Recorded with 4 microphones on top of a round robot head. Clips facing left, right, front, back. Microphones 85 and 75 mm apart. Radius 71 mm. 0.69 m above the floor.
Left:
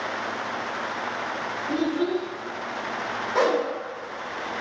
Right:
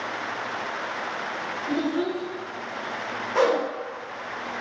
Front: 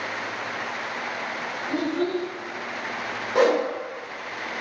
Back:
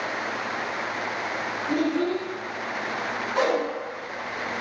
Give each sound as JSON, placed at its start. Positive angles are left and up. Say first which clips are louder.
{"t": 1.7, "sound": "a child speaking", "louder": "left 1 dB, back 1 dB", "azimuth_deg": -100, "distance_m": 1.3}
{"t": 3.4, "sound": "a whoosh", "louder": "right 1 dB, front 4 dB", "azimuth_deg": 5, "distance_m": 0.8}